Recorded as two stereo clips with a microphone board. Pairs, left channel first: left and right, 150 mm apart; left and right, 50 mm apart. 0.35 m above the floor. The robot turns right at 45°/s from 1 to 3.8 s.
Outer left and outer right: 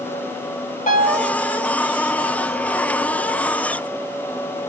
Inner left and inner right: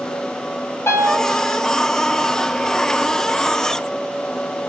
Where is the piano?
60° left (ahead or behind), 1.5 m; by 1.3 s 55° left (ahead or behind), 1.5 m.